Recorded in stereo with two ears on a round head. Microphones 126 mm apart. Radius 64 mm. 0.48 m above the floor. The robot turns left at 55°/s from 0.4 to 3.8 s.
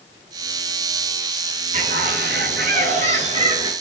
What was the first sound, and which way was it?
A bird, 50° right.